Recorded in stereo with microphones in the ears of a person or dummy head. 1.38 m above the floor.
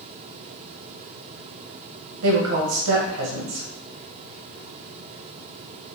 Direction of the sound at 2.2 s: 85° right.